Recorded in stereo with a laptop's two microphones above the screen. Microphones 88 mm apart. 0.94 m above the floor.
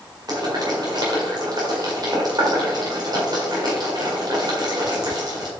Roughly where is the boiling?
Right.